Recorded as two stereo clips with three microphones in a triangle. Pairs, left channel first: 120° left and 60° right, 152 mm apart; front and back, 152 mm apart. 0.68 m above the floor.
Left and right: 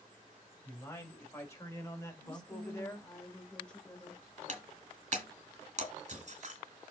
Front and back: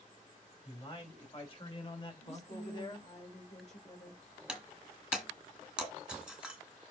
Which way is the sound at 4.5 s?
95° right.